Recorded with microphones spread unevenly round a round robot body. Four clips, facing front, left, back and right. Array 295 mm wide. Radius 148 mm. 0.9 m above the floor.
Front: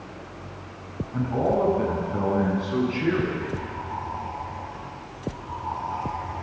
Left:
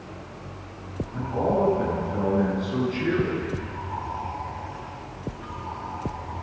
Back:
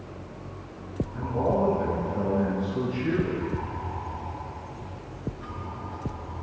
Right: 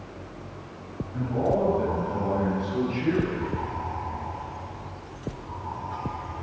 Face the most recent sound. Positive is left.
turn(degrees=25)